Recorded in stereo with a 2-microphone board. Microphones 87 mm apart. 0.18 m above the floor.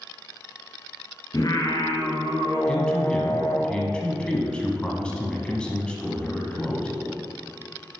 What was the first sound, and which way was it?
Singing, 50° left (ahead or behind).